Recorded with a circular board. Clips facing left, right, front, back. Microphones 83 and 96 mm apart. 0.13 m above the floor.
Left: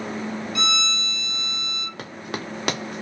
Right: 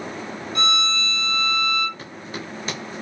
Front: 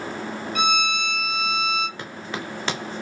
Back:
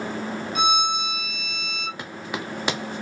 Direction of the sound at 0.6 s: 105° right.